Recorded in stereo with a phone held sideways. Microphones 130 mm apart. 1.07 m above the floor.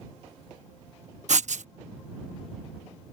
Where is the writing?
65° right (ahead or behind).